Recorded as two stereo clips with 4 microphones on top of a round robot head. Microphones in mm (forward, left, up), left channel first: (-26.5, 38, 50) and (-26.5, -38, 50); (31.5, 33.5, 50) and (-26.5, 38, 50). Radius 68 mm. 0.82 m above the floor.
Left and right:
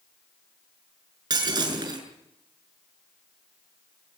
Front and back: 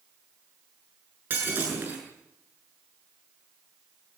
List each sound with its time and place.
1.3 s breaking glass: 120° right, 7 m